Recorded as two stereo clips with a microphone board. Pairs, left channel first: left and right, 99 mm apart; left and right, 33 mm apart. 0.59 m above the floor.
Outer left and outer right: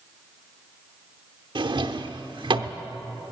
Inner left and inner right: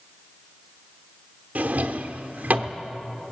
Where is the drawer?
55° right (ahead or behind), 0.7 m.